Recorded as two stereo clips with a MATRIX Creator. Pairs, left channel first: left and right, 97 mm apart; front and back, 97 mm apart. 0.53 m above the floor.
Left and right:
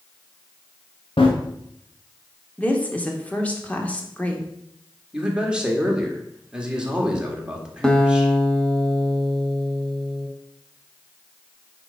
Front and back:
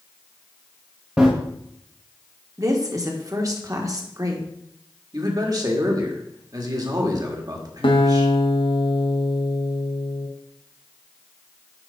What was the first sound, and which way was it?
Running footsteps, 105° left.